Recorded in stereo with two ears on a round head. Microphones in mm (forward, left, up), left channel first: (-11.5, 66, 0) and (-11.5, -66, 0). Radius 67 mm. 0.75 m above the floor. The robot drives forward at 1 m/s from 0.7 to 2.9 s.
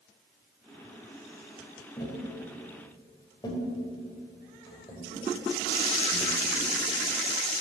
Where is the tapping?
20° left (ahead or behind), 4 m; by 6.7 s 25° left (ahead or behind), 3 m.